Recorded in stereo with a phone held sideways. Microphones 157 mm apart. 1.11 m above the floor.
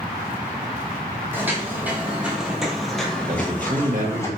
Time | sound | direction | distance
1.3 | footsteps | 15° right (ahead or behind) | 1.6 m
3.3 | a man speaking | 55° right (ahead or behind) | 1.5 m